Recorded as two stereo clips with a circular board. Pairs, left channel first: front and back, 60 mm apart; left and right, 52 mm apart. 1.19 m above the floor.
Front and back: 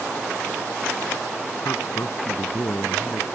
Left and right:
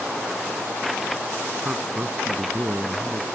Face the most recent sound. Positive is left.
turn(degrees=-40)